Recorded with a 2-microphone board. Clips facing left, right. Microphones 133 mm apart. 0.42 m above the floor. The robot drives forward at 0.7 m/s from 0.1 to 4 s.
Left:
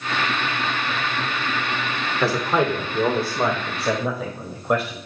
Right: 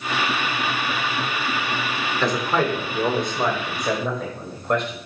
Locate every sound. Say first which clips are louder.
2.2 s a man speaking: left 1 dB; 10° left (ahead or behind), 1.3 m; by 5.0 s 5° left (ahead or behind), 2 m